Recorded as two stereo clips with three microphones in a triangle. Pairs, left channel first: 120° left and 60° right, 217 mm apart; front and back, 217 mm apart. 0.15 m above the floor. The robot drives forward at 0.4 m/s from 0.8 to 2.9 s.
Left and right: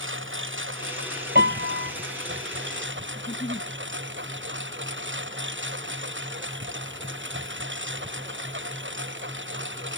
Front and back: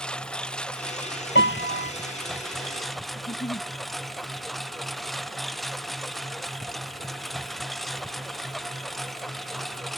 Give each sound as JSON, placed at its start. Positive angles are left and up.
{"t": 0.0, "sound": "a lawn mower", "azimuth_deg": -85}
{"t": 1.4, "sound": "a piano", "azimuth_deg": -25}
{"t": 3.1, "sound": "a giggle", "azimuth_deg": 55}